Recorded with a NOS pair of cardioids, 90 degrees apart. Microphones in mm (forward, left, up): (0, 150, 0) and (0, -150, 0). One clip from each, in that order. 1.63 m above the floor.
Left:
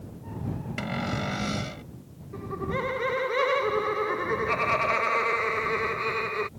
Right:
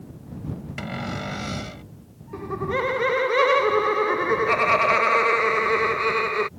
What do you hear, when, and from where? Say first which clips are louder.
0.8 s a cupboard door: even; straight ahead
2.3 s laughter: right 5 dB; 25° right